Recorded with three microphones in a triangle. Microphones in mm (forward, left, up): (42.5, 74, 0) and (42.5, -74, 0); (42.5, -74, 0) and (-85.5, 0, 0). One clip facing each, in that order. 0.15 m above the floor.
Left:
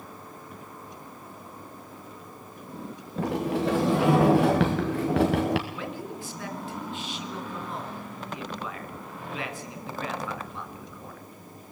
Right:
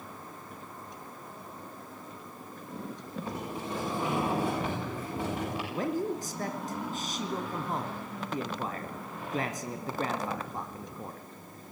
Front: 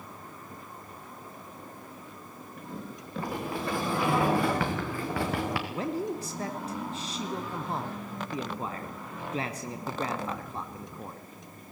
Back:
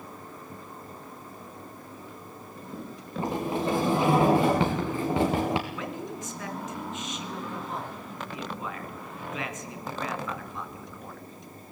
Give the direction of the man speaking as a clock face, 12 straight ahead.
2 o'clock.